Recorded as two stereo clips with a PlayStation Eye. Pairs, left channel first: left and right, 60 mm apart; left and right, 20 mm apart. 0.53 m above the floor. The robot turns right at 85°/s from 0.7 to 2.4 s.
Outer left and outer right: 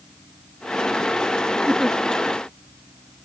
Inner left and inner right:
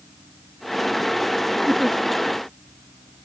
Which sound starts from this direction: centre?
A giggle, at 1.7 s.